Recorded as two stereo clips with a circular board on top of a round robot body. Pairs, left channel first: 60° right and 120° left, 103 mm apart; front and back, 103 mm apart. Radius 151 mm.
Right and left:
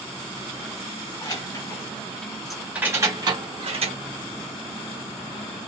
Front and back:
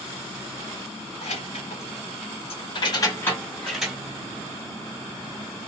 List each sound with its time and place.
1.2 s keys jangling: 5° right, 1.3 m; by 4.0 s 95° left, 1.0 m